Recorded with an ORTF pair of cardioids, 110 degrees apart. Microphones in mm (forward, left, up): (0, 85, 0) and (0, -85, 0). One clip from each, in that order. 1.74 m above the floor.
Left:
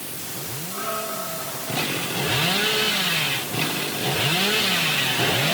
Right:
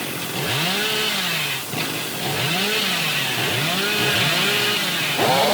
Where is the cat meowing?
I don't hear a cat meowing.